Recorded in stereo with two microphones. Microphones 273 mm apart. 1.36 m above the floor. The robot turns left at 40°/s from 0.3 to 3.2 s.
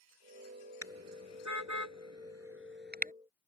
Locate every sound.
0.8 s a car horn: 60° right (ahead or behind); by 3.1 s 30° right (ahead or behind)